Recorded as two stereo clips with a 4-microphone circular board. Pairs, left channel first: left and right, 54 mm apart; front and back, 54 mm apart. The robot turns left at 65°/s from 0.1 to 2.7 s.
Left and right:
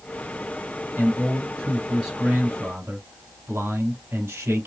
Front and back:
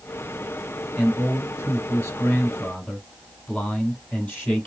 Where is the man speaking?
60° left, 4.5 m; by 4.7 s 55° right, 4.5 m.